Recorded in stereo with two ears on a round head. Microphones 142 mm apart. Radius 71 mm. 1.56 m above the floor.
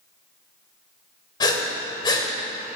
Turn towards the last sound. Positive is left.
turn(degrees=25)  # may be behind; listen again after turning